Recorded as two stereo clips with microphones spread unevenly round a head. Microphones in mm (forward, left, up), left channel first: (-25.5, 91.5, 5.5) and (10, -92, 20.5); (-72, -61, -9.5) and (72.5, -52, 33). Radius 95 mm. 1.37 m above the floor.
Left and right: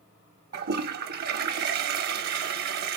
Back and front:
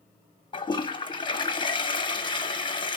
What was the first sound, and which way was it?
A toilet flushing, 120° right.